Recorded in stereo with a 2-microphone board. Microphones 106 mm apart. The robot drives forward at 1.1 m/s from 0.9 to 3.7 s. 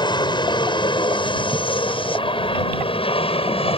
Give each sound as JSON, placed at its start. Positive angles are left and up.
{"t": 0.0, "sound": "an aircraft", "side_deg": 45}